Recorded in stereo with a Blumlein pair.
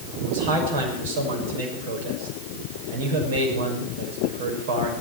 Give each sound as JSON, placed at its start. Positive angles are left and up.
{"t": 0.2, "sound": "a man speaking", "azimuth_deg": -55, "distance_m": 6.0}